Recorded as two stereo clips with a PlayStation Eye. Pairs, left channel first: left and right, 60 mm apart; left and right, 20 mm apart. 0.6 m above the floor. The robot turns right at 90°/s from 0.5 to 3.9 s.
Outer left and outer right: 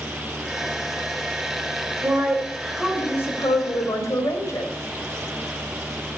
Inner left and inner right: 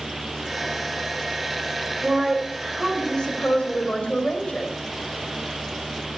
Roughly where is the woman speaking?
Ahead right.